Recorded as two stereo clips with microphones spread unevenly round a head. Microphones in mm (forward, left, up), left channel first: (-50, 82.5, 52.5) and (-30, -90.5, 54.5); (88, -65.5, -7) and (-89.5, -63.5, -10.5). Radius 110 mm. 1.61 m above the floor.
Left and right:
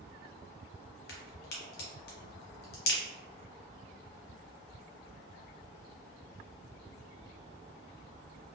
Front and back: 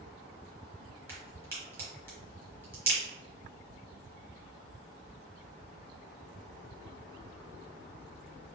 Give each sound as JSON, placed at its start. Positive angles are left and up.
{"t": 1.1, "sound": "a crack", "azimuth_deg": 105, "distance_m": 1.0}